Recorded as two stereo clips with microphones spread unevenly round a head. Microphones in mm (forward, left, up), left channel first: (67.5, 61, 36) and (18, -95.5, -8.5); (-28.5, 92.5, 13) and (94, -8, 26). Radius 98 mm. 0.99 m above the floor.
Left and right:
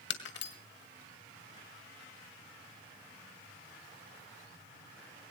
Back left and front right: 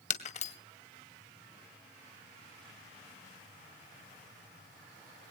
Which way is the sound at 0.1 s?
95° left.